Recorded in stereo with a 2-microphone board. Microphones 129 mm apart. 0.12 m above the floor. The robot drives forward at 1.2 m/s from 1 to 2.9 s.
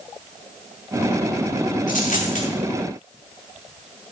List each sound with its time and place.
1.9 s a dropped coin: 85° left, 5.5 m; by 2.5 s 90° left, 5.5 m